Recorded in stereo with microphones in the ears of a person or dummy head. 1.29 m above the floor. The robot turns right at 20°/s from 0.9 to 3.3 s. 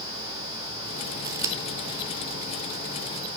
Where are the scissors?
20° right (ahead or behind), 1.0 m; by 1.6 s 15° right (ahead or behind), 1.0 m.